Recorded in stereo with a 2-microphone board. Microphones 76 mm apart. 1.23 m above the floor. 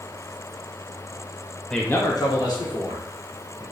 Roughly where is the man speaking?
Centre.